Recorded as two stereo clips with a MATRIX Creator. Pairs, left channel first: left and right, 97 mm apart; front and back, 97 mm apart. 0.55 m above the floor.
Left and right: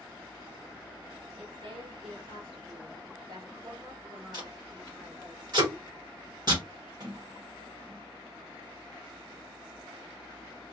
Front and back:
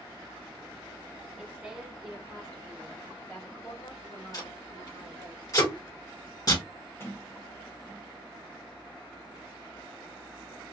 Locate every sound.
1.4 s a woman speaking: 110° right, 1.3 m; by 5.3 s 5° right, 1.6 m
4.3 s tape being pulled: 45° right, 1.6 m
7.0 s a sliding door: 55° right, 1.8 m